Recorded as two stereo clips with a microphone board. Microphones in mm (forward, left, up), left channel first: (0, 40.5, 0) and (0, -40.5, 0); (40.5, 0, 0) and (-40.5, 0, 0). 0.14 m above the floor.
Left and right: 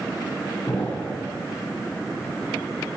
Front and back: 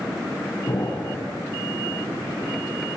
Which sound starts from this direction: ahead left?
An explosion, at 0.7 s.